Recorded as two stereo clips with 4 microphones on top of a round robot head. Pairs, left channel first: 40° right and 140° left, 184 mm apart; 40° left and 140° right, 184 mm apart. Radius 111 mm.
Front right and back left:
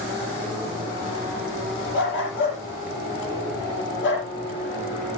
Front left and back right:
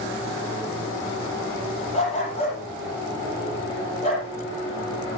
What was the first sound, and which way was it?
A dog barking, 20° right.